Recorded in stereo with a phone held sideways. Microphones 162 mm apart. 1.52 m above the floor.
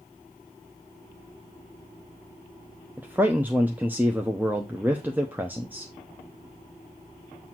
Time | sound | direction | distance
3.0 | a man speaking | 10° right (ahead or behind) | 0.7 m